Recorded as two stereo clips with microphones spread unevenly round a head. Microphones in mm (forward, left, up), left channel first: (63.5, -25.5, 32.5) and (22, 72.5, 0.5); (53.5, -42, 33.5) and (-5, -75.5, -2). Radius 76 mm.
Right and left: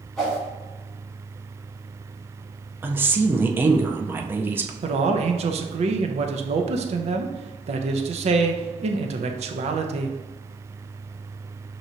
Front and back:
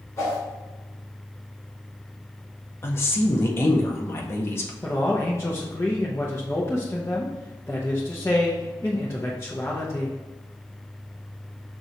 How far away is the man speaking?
About 0.7 m.